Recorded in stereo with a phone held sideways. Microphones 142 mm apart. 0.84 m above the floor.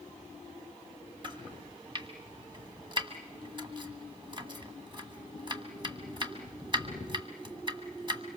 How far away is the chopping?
About 1.7 m.